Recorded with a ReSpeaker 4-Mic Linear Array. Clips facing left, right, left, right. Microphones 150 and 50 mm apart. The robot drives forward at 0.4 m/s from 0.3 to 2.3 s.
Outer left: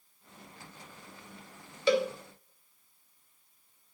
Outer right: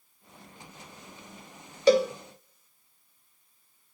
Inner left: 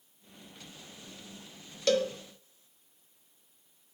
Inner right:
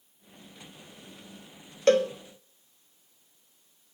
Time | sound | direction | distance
1.9 | a cowbell | 40° right (ahead or behind) | 1.0 m